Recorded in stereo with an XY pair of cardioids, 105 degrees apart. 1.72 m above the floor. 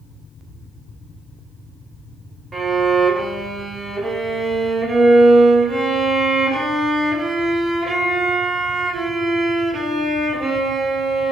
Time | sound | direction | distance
2.5 | a violin | 35° right | 0.7 m